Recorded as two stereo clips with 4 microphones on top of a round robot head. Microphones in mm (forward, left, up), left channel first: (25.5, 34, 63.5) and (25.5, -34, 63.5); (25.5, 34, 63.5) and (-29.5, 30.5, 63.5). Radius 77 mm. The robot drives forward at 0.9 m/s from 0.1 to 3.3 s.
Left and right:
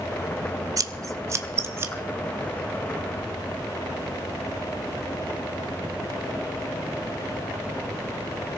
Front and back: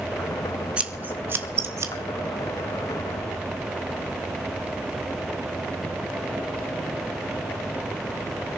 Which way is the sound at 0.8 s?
110° right.